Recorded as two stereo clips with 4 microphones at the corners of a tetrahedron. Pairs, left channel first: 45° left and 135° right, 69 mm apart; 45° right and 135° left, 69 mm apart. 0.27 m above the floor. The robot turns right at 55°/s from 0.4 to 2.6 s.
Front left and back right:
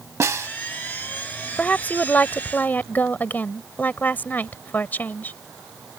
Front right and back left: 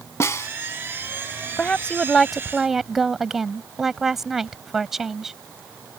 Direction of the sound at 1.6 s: Straight ahead.